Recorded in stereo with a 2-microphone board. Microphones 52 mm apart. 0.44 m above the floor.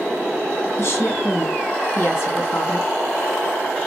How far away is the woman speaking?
About 2.5 m.